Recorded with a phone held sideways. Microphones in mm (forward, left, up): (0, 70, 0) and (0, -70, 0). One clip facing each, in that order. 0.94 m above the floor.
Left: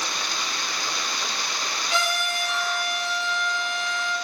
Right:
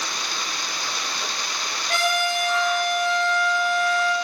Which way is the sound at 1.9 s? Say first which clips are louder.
Right 5 dB; 60° right (ahead or behind).